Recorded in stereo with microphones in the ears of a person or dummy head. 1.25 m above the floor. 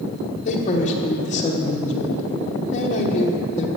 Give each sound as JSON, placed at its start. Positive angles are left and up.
{"t": 0.5, "sound": "a man speaking", "side_deg": 40, "distance_m": 1.0}